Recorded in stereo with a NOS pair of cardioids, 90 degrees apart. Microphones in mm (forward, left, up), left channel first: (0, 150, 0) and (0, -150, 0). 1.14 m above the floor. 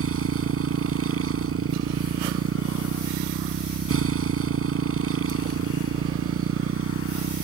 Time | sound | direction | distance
0.0 | a motorcycle | 50° right | ?